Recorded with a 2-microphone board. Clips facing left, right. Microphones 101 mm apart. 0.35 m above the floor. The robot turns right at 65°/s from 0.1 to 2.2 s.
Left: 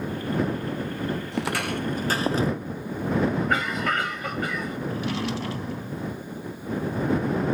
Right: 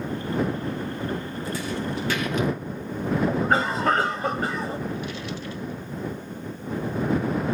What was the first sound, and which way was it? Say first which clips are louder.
Footsteps: left 2 dB; 80° left.